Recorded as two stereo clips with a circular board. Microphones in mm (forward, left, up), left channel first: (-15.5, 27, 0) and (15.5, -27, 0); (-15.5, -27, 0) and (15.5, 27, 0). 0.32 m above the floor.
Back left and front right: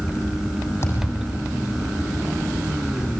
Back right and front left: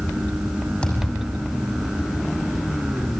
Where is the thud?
165° left, 6 m.